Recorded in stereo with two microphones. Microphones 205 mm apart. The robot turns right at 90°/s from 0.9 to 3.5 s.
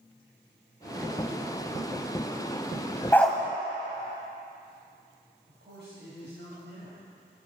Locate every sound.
3.1 s a dog barking: 15° left (ahead or behind), 1.0 m; by 3.4 s 10° right (ahead or behind), 1.0 m
5.5 s a man speaking: 75° right (ahead or behind), 3 m